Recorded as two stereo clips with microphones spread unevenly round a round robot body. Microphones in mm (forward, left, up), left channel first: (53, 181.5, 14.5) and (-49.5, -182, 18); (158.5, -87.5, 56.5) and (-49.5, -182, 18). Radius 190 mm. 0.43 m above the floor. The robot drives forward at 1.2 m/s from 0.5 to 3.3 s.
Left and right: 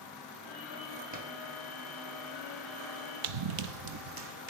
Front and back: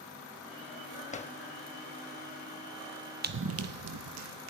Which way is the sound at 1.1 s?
40° right.